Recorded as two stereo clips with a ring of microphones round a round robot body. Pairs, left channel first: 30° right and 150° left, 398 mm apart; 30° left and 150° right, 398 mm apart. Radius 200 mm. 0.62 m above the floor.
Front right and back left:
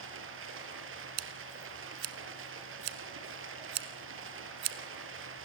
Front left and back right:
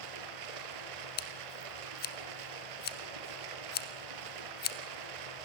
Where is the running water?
150° right, 5 m.